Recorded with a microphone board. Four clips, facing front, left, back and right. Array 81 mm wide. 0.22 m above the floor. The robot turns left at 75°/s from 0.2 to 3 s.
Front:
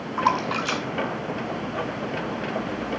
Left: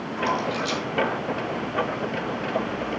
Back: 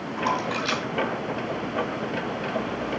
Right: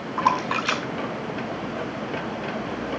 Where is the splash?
50° right, 1.2 m; by 2.3 s 155° left, 1.2 m.